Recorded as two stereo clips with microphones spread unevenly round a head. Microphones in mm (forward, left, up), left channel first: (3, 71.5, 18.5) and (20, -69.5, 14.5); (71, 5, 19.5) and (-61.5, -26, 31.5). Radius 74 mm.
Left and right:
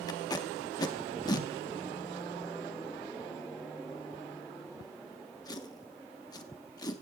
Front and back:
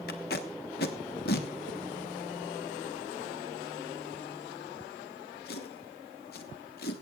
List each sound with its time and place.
0.1 s tape being pulled: 35° left, 1.2 m